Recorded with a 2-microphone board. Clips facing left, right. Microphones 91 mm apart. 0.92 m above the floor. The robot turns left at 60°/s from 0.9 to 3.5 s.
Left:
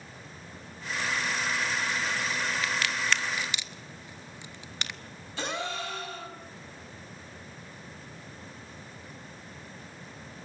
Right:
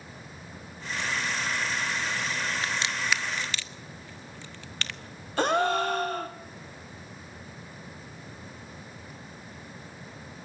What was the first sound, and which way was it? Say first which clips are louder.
A crack: even; 35° right (ahead or behind).